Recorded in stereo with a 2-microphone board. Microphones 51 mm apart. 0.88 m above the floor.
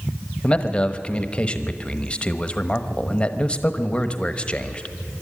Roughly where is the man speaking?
Left.